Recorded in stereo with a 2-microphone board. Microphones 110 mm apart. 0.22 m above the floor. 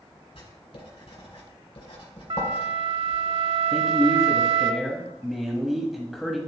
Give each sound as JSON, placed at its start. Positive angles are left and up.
{"t": 0.3, "sound": "writing", "side_deg": 65, "distance_m": 2.5}
{"t": 2.3, "sound": "a flute", "side_deg": -55, "distance_m": 0.8}
{"t": 3.7, "sound": "a man speaking", "side_deg": 0, "distance_m": 1.0}